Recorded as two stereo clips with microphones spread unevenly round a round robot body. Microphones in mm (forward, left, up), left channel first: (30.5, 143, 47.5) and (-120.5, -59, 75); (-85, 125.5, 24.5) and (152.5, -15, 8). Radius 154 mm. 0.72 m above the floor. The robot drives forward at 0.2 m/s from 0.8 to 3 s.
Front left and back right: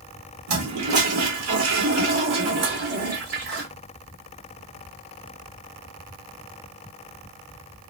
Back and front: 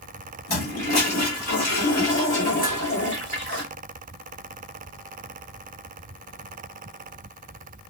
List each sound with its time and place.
0.5 s a toilet flushing: 150° right, 1.2 m; by 3.6 s 155° right, 1.6 m
2.6 s dishes clattering: 110° right, 1.5 m